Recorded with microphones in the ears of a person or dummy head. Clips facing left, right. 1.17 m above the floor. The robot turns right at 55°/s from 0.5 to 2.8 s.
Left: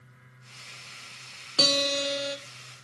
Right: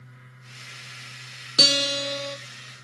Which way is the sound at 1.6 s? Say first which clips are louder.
Even; 25° right.